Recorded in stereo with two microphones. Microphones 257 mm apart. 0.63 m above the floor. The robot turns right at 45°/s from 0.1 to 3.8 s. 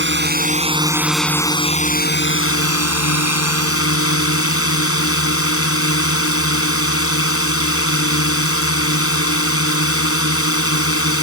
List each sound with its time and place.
0.0 s a drone: 50° right; by 11.2 s 120° left